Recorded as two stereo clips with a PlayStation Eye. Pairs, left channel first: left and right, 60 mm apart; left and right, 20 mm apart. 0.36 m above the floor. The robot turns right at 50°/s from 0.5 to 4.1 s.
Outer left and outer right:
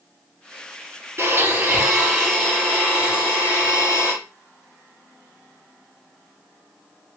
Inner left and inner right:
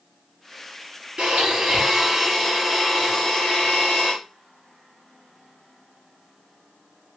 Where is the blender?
50° right, 4 m; by 4.1 s 95° left, 4 m.